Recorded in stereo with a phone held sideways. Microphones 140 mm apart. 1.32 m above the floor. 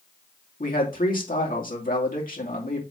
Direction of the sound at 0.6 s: 80° left.